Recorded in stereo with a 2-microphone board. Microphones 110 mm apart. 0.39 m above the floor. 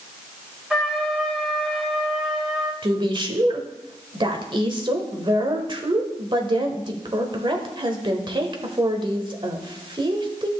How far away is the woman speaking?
About 1.3 m.